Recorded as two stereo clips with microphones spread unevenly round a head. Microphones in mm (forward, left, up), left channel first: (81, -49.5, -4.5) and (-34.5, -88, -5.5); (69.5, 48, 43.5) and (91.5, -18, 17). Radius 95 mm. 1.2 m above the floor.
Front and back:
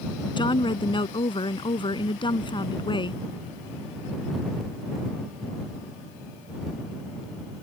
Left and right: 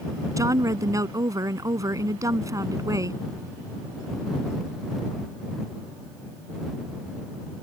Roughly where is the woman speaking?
Ahead right.